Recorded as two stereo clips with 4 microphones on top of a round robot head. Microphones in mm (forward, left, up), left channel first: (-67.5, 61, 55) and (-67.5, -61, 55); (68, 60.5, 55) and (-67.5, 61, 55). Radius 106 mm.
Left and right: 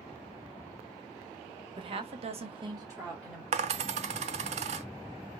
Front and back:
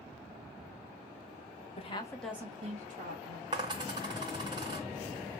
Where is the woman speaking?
40° right, 1.1 m; by 3.4 s 165° right, 1.8 m.